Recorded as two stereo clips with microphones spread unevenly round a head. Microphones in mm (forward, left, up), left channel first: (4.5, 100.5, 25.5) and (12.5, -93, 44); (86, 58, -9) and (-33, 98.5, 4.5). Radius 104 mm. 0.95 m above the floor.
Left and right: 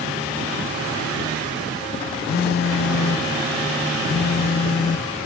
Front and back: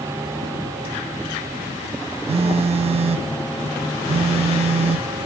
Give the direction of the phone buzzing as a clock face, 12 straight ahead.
7 o'clock.